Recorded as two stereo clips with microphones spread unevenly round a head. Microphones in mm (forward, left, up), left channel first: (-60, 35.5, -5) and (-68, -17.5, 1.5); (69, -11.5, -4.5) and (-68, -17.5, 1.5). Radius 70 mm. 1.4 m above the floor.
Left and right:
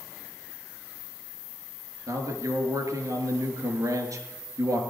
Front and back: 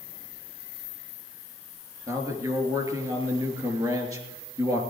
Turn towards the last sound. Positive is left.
turn(degrees=-115)